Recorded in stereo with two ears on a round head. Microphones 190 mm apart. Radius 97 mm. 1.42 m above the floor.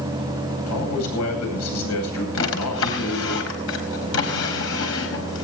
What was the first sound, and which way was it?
A man speaking, 90° left.